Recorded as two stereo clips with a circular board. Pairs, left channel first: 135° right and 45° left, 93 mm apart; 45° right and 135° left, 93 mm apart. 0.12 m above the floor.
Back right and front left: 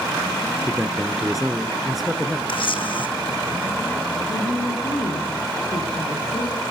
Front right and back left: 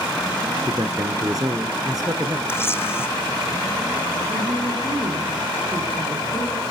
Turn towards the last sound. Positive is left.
turn(degrees=-170)